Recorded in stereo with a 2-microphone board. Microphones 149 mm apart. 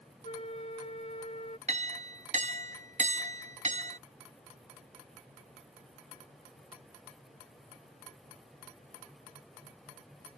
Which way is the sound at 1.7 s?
50° right (ahead or behind).